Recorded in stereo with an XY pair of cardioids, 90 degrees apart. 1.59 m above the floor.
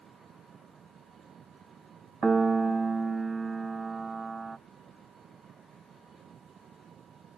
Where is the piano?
35° right.